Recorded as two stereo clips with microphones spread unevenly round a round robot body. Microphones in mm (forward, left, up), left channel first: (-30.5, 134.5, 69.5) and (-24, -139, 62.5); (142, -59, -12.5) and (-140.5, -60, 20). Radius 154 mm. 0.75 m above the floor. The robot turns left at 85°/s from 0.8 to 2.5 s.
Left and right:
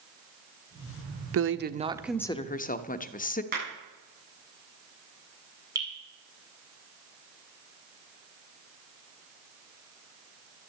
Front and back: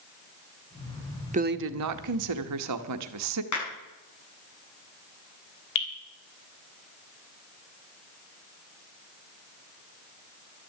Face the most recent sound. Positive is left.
turn(degrees=-10)